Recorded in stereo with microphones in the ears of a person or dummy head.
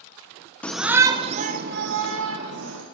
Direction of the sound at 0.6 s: 5° left (ahead or behind).